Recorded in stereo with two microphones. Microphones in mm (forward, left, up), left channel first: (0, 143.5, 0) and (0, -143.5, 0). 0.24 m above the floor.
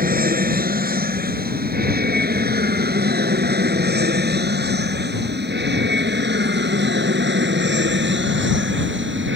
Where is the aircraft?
30° right (ahead or behind); by 9.4 s 40° right (ahead or behind).